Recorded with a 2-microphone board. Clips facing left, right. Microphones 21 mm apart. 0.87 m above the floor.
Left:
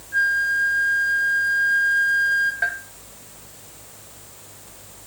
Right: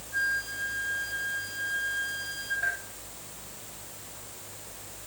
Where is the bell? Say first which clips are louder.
Left 6 dB; 75° left (ahead or behind), 1.9 m.